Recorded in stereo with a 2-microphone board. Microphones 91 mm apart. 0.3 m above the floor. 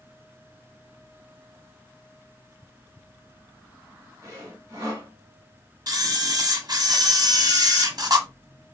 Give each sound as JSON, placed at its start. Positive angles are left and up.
{"t": 4.2, "sound": "sawing", "side_deg": -35, "distance_m": 1.3}
{"t": 5.9, "sound": "a camera shutter", "side_deg": -45, "distance_m": 0.8}